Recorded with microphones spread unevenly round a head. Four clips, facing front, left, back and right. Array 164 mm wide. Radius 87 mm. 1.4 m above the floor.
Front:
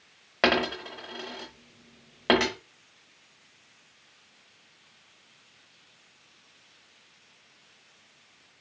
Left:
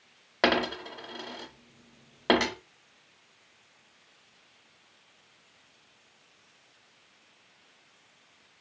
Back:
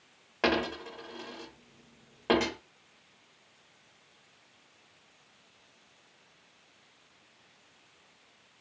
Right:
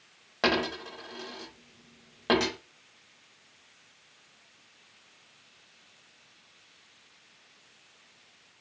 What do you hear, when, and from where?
0.4 s a dropped coin: 55° left, 0.8 m